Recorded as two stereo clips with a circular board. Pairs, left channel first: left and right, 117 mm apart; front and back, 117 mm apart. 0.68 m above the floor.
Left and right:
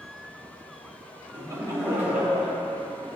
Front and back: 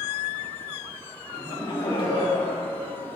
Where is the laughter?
55° right, 1.1 m; by 3.1 s 5° left, 2.0 m.